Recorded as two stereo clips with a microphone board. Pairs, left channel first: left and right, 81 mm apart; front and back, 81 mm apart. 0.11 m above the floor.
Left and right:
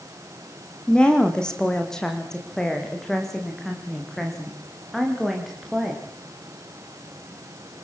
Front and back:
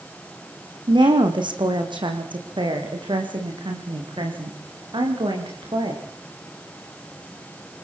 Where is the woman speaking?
170° left, 5 m; by 6.0 s straight behind, 10 m.